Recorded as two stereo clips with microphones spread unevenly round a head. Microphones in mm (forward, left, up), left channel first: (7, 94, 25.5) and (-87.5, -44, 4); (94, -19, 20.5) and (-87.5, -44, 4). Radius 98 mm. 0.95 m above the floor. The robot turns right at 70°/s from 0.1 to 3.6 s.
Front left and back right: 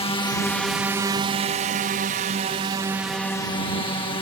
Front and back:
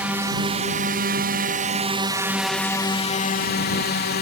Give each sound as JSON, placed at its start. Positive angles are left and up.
{"t": 0.0, "sound": "a drone", "azimuth_deg": 110}